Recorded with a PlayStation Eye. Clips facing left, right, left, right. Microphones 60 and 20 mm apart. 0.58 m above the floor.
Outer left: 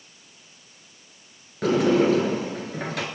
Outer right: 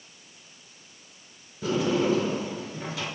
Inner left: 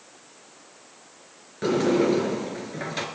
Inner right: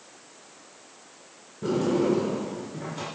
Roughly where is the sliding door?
Left.